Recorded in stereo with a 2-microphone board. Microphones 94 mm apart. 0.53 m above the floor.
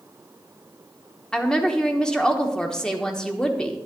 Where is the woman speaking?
10° left (ahead or behind), 1.0 m.